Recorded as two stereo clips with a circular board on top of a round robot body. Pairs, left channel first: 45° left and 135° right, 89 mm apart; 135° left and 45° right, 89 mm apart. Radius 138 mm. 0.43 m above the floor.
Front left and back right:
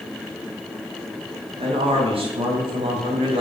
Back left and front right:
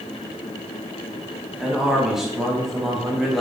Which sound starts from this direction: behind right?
A man speaking, at 1.6 s.